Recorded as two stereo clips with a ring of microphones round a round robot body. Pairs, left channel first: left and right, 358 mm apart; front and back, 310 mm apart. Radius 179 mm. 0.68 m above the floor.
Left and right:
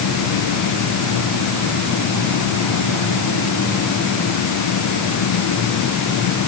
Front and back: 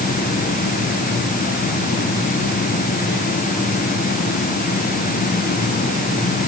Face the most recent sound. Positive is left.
No sound to turn to.